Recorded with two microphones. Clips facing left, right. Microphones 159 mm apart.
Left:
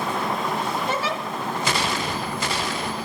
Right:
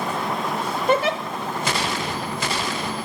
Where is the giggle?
60° right (ahead or behind), 0.6 m.